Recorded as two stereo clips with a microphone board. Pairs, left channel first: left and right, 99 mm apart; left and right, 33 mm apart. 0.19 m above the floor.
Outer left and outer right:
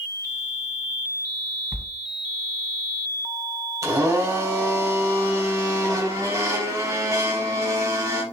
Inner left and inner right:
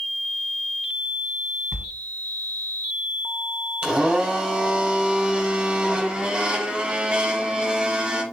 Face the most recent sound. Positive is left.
turn(degrees=-35)  # may be behind; listen again after turning